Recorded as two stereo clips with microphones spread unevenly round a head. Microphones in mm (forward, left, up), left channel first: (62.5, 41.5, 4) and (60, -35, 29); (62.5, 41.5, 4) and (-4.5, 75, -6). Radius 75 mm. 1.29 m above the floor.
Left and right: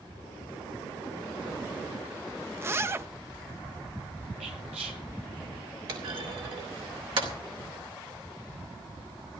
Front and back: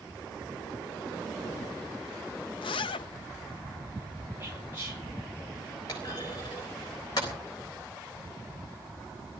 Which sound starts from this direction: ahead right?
A zipper, at 2.6 s.